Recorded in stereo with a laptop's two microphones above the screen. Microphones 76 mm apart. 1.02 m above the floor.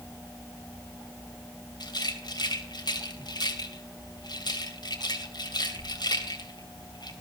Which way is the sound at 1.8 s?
70° left (ahead or behind).